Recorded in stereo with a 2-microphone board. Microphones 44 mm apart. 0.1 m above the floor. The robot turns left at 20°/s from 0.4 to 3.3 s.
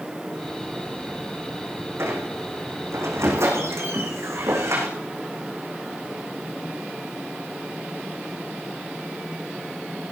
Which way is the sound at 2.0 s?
65° right (ahead or behind).